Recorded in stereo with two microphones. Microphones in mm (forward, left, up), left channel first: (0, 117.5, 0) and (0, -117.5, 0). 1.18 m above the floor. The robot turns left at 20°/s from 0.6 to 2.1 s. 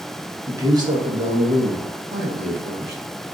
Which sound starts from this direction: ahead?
A man speaking, at 0.5 s.